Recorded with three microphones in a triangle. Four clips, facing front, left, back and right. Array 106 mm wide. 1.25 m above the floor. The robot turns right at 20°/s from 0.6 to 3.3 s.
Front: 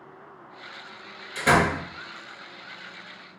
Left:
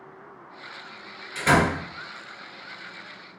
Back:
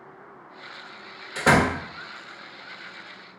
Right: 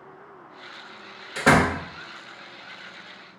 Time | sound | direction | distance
1.4 | a door slam | 125° right | 1.4 m